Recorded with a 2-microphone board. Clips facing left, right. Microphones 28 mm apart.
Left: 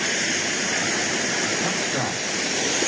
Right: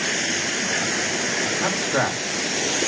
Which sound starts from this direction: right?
A man speaking, at 1.6 s.